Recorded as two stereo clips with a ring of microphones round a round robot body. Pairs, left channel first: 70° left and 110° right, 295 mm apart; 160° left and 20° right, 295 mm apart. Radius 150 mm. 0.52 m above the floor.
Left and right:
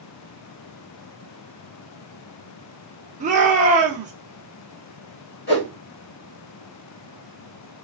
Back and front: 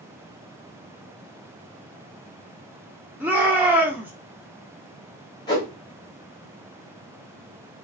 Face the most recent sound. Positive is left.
turn(degrees=90)